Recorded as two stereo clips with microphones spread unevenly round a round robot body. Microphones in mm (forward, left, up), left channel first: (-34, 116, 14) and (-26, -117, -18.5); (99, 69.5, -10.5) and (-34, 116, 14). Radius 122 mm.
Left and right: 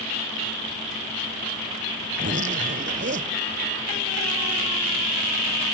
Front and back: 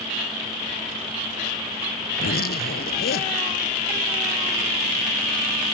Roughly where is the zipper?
Ahead right.